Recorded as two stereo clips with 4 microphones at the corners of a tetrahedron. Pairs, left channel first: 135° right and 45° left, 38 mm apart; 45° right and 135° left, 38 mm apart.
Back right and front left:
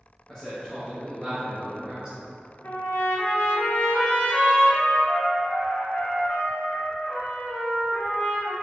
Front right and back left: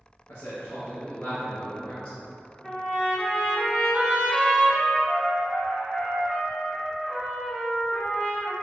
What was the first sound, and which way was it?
A man speaking, 55° right.